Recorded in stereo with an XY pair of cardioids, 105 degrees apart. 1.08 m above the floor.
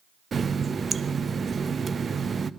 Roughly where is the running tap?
Ahead right.